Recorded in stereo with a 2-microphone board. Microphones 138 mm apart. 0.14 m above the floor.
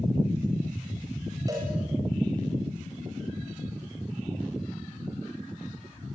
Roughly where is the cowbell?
Right.